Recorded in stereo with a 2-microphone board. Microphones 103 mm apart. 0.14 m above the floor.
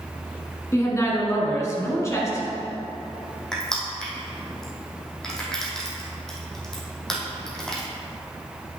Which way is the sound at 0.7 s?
30° left (ahead or behind).